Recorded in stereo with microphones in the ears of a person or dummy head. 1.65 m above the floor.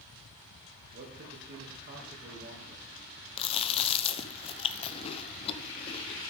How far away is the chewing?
About 1.0 m.